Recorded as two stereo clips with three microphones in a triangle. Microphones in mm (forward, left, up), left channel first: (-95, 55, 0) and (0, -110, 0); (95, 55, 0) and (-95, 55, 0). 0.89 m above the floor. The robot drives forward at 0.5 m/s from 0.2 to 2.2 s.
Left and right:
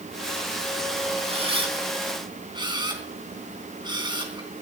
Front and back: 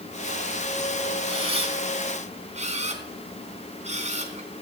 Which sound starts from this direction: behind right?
A camera shutter, at 1.3 s.